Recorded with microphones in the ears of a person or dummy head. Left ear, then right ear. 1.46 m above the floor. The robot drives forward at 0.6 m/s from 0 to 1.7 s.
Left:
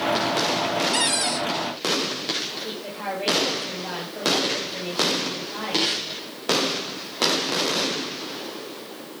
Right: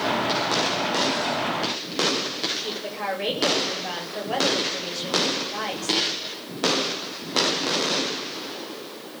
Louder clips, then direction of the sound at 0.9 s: Left 1 dB; 65° left (ahead or behind).